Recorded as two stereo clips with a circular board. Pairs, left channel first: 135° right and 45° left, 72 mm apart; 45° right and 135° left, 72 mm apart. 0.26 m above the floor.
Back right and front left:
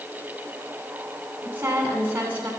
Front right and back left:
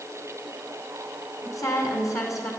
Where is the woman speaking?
15° right, 2.5 m.